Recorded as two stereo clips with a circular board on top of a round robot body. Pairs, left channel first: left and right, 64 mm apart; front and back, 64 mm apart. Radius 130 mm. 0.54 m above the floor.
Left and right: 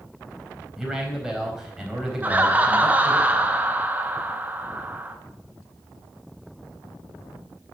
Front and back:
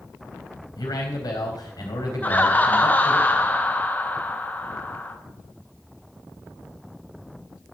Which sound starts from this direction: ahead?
A man speaking, at 0.8 s.